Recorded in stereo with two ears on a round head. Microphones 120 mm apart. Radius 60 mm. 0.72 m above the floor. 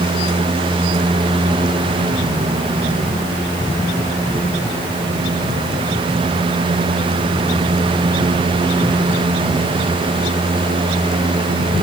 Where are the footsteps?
No footsteps in this recording.